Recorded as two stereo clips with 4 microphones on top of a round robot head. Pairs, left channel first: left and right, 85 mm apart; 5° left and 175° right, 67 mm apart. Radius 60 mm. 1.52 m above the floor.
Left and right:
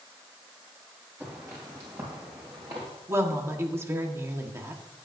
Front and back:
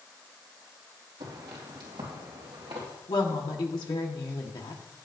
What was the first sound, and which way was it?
Footsteps, 160° right.